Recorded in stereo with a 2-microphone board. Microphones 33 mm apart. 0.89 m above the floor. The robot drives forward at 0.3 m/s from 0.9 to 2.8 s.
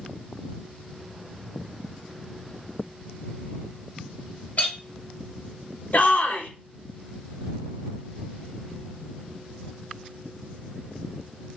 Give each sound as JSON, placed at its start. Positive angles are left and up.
{"t": 4.6, "sound": "a clink", "side_deg": 60, "distance_m": 0.8}
{"t": 5.9, "sound": "a shout", "side_deg": 55, "distance_m": 0.6}